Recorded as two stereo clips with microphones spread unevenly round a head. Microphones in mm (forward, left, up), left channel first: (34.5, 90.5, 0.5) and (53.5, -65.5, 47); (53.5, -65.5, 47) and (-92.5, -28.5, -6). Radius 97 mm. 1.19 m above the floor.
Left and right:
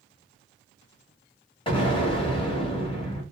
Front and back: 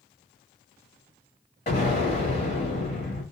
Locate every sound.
1.7 s an explosion: 35° left, 1.2 m